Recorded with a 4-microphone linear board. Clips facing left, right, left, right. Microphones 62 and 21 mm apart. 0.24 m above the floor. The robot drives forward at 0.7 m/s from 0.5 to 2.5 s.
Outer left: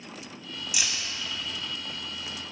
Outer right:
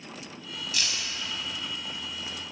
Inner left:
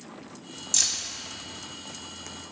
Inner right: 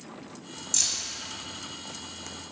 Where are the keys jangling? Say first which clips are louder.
Even, inner left 2 dB; 15° left (ahead or behind), 1.0 m.